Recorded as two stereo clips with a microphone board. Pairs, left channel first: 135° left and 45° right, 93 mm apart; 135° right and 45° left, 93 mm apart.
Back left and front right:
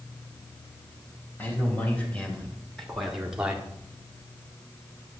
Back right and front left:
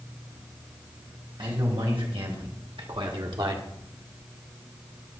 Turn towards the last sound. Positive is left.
turn(degrees=20)